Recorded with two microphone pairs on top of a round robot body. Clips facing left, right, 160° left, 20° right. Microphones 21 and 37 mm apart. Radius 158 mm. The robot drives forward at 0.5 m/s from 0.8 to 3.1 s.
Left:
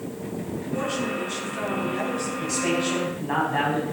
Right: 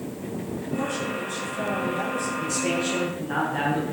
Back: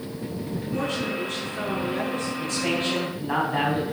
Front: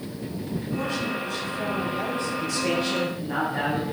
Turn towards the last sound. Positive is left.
turn(degrees=130)